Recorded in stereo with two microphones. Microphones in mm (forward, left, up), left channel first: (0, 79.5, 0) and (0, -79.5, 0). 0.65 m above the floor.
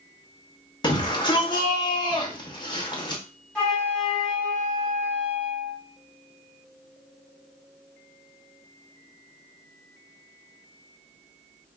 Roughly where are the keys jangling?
No keys jangling in this recording.